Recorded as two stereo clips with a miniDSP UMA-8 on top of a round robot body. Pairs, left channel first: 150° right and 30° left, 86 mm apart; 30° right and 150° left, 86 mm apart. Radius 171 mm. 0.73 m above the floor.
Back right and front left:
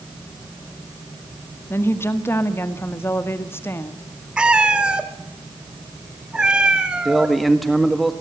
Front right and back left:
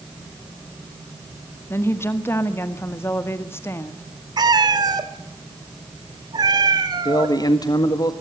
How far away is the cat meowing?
About 1.5 m.